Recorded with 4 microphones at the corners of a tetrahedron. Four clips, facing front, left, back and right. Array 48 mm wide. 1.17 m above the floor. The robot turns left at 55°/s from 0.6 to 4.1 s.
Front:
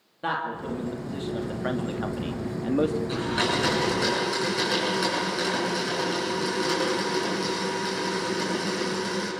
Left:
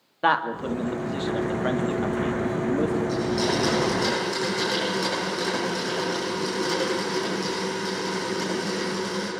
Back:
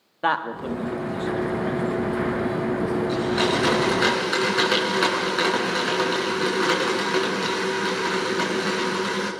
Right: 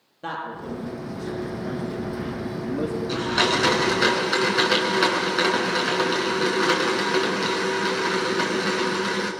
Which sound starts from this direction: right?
A blender, at 3.1 s.